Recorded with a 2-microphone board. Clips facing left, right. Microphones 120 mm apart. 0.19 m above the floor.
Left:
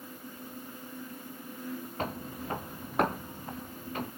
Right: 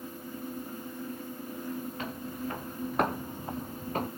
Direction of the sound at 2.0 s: 45° left (ahead or behind).